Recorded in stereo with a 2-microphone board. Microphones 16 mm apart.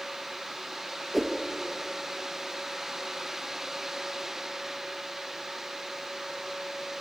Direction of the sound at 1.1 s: Centre (ahead or behind).